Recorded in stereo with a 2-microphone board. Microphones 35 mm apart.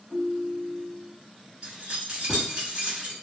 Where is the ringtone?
45° right (ahead or behind), 1.4 m.